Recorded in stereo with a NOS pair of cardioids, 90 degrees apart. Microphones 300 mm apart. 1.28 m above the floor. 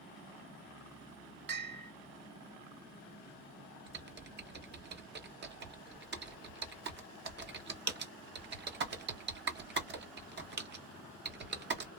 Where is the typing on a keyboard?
35° right, 1.0 m.